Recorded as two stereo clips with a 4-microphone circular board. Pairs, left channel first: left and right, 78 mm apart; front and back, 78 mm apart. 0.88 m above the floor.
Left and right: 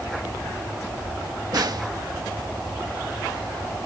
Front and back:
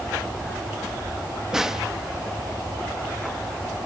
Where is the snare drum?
95° right.